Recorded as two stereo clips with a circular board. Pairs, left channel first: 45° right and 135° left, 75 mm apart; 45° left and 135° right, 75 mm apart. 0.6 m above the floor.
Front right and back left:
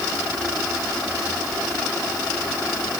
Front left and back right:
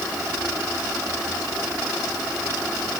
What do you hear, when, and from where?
Only background noise.